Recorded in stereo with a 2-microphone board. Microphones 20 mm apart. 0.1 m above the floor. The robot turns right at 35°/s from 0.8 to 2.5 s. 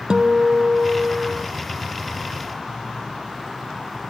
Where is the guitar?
45° right (ahead or behind); by 1.5 s 25° right (ahead or behind).